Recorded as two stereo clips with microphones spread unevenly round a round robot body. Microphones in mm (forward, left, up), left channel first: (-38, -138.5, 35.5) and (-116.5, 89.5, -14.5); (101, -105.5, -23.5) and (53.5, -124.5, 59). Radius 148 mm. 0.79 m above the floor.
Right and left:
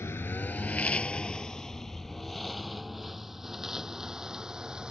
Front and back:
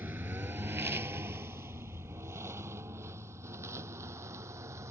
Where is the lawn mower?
150° right; by 4.9 s 165° right.